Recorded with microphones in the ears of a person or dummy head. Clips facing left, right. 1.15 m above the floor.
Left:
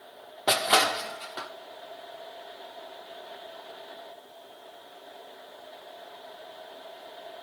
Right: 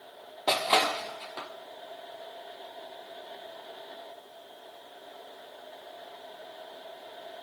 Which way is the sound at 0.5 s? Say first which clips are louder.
Left 1 dB; 10° left (ahead or behind).